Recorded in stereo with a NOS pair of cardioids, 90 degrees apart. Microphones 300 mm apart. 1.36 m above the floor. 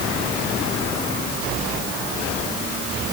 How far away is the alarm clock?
No alarm clock in this recording.